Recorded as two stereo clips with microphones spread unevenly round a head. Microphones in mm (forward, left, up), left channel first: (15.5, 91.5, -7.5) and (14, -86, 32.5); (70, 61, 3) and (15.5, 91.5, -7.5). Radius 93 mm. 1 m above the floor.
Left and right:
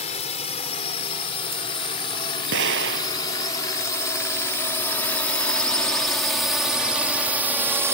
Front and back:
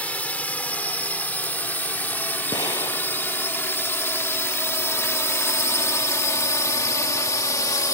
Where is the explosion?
70° right.